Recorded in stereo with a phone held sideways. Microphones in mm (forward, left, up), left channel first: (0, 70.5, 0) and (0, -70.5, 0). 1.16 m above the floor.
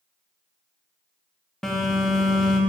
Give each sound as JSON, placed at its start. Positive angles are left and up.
{"t": 1.6, "sound": "a phone buzzing", "side_deg": 5, "distance_m": 1.3}